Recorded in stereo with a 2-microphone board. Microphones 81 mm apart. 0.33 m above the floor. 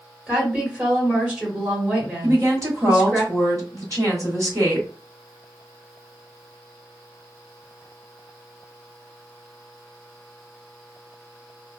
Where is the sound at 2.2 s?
45° right (ahead or behind), 1.4 m.